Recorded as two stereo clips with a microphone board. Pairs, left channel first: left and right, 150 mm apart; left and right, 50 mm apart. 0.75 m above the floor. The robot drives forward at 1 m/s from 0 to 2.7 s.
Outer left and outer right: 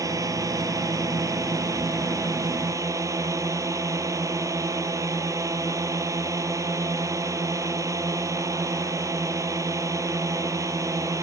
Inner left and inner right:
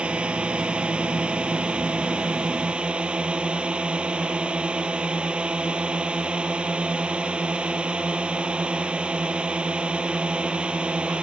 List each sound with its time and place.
0.0 s a drone: 20° right (ahead or behind)